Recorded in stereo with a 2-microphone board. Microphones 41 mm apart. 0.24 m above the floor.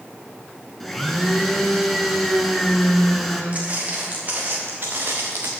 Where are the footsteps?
35° right (ahead or behind), 3.5 m; by 5.5 s 80° right, 1.2 m.